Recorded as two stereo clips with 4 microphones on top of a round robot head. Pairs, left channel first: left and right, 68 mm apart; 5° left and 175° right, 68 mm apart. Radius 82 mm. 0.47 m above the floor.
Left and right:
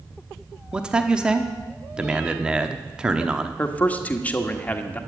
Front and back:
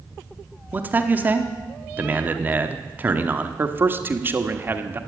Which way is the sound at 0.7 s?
155° right.